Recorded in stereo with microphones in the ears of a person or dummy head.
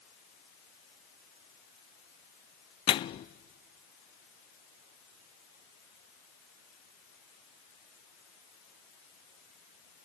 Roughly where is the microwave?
Left.